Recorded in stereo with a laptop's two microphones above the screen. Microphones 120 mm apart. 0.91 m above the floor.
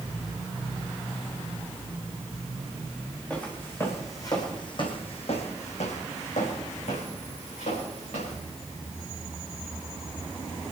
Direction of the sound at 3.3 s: 10° left (ahead or behind).